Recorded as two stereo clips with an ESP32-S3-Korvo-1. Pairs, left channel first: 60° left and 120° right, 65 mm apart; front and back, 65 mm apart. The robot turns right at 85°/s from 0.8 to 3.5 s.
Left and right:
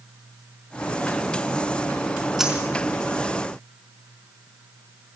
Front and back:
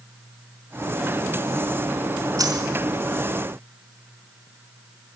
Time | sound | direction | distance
2.4 | a dropped coin | 155° left | 4.5 m